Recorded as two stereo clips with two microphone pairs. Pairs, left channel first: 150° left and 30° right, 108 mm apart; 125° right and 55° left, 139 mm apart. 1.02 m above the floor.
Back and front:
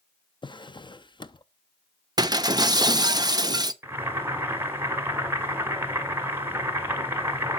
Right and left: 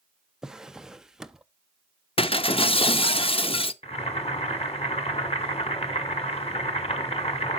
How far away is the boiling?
About 1.6 m.